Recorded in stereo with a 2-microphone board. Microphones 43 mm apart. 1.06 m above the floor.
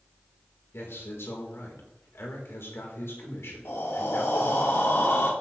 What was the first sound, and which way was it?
A man speaking, 80° left.